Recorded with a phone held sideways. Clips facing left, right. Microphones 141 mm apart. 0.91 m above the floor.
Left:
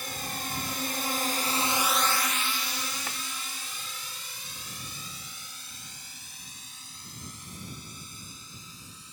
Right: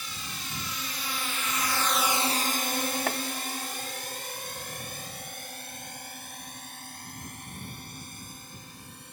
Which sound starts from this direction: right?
Chopping, at 3.1 s.